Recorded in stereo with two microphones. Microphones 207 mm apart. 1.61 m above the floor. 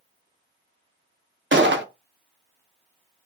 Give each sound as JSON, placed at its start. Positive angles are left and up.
{"t": 1.5, "sound": "a gunshot", "side_deg": -65, "distance_m": 0.7}